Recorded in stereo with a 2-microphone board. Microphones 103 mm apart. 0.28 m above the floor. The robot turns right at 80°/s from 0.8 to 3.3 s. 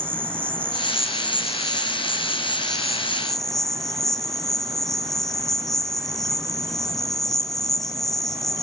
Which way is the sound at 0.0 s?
25° right.